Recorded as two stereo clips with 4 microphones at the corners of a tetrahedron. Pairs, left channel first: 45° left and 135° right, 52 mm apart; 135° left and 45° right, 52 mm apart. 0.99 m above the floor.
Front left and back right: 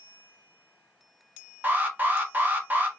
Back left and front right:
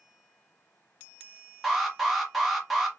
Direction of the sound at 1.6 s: 125° right.